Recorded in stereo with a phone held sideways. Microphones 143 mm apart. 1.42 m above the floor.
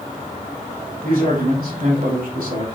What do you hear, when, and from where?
1.0 s a man speaking: 85° right, 3.5 m